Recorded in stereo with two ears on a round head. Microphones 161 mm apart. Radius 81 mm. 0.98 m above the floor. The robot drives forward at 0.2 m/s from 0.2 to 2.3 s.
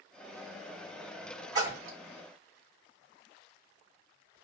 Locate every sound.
1.6 s a splash: 25° right (ahead or behind), 1.3 m; by 2.0 s 20° right (ahead or behind), 1.4 m